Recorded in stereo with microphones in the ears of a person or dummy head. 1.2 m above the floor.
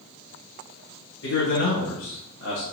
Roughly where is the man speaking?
Left.